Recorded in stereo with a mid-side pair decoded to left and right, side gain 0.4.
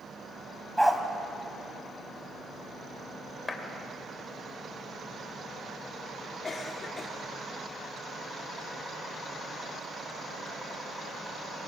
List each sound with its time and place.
0.8 s a dog barking: 5° right, 2.5 m
3.5 s a clap: 25° left, 3 m
6.4 s a cough: 40° left, 3.5 m